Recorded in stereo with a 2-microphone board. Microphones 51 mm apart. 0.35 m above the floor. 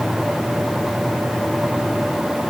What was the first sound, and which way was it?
Only background noise.